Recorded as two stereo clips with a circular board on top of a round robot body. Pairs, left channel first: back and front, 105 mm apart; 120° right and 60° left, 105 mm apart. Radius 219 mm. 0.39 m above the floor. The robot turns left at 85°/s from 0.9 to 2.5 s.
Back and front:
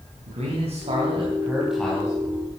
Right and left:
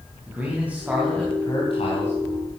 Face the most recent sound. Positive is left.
turn(degrees=-150)